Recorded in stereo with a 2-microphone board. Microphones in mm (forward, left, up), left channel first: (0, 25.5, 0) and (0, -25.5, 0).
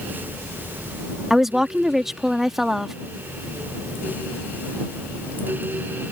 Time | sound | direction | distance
1.3 | a woman speaking | 5° right (ahead or behind) | ?